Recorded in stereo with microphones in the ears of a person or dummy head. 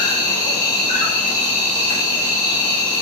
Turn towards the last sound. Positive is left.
turn(degrees=30)  # may be behind; listen again after turning